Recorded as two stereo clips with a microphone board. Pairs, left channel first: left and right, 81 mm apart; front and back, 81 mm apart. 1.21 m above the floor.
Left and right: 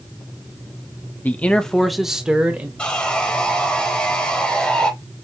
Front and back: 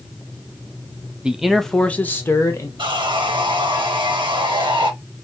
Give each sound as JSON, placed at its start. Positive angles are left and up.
{"t": 1.2, "sound": "a man speaking", "azimuth_deg": 115, "distance_m": 0.6}
{"t": 2.8, "sound": "sawing", "azimuth_deg": 165, "distance_m": 1.3}